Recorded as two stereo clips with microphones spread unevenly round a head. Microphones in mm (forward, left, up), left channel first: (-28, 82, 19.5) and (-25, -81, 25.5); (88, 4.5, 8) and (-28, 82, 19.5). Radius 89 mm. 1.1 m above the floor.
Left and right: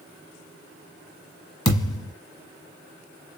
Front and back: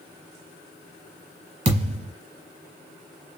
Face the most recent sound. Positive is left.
turn(degrees=145)